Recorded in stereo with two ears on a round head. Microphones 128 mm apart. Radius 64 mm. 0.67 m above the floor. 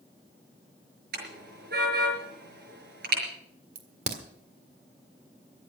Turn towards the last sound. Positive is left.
turn(degrees=-50)  # may be behind; listen again after turning